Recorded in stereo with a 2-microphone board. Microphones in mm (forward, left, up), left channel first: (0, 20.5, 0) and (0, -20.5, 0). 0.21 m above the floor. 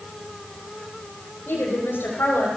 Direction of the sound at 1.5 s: 75° left (ahead or behind).